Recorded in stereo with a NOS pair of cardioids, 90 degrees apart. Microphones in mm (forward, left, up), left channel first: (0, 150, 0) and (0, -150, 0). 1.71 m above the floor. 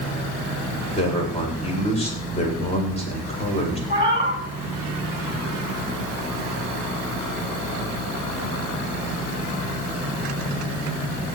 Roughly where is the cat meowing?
Ahead.